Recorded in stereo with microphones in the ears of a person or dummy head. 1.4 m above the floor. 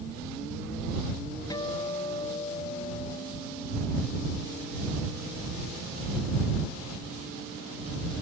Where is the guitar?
25° left (ahead or behind).